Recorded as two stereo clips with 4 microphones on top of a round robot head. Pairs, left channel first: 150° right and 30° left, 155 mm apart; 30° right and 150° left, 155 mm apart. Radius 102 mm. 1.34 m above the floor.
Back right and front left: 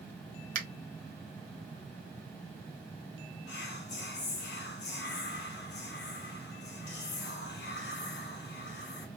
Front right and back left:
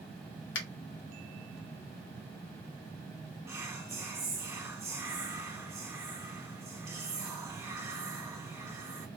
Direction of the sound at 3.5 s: 135° right.